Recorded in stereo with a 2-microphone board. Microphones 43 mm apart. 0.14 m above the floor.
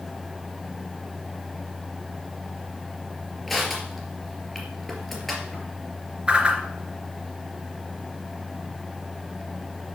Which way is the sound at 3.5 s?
Centre (ahead or behind).